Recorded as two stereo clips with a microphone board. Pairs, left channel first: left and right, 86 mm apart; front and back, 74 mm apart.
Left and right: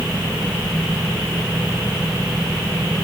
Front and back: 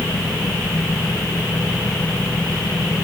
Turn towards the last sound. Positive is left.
No sound to turn to.